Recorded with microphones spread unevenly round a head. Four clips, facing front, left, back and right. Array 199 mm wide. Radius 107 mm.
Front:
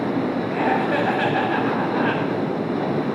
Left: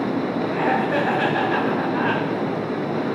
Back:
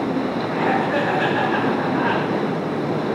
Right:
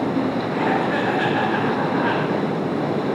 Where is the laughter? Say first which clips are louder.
Left 1 dB, back 1 dB; 30° left, 6 m.